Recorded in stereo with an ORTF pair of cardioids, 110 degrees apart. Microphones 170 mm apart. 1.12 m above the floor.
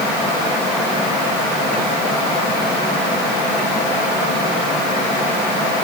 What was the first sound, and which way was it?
Only background noise.